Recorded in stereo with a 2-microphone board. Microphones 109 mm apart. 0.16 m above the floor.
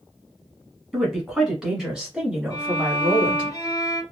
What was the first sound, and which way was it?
A woman speaking, centre (ahead or behind).